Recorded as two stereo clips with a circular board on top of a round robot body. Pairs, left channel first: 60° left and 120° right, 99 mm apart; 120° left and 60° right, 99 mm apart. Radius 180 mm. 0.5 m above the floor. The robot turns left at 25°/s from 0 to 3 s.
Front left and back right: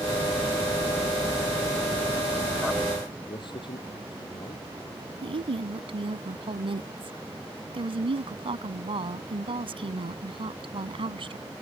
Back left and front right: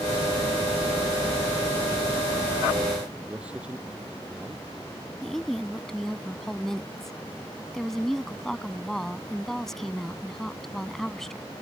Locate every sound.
3.3 s a man speaking: 20° left
5.2 s a woman speaking: 155° right